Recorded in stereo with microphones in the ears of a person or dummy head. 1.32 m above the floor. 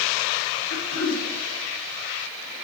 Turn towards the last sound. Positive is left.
turn(degrees=45)  # may be behind; listen again after turning